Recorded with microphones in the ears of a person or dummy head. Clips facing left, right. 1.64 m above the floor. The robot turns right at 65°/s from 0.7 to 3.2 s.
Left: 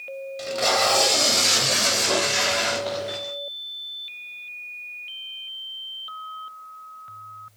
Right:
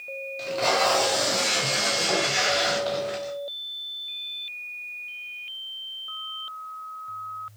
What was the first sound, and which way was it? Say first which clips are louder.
Tape being pulled: even; 10° left.